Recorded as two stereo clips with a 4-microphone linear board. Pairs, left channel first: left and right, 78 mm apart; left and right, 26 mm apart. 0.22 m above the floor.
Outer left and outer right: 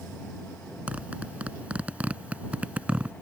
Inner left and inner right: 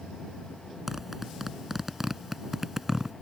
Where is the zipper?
15° right (ahead or behind).